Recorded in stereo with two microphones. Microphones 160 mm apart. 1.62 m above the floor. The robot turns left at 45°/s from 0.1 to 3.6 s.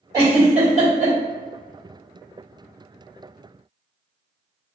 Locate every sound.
0.1 s a giggle: 25° right (ahead or behind), 1.6 m; by 1.1 s 65° right (ahead or behind), 1.6 m